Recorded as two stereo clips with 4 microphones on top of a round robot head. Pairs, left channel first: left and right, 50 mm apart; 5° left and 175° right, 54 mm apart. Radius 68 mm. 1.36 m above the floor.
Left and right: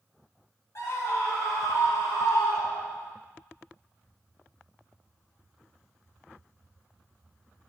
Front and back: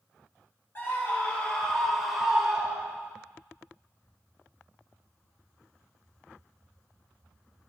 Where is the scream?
55° left, 2.5 m; by 3.1 s 120° left, 2.5 m.